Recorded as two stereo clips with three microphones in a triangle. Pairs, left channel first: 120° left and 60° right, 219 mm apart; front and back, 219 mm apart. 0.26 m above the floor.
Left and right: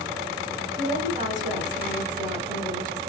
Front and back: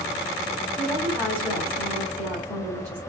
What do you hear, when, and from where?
0.8 s a woman speaking: 70° right, 1.6 m